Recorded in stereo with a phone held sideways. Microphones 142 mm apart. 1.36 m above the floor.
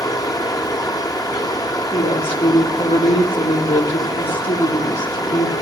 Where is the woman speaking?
50° left (ahead or behind), 4.5 m.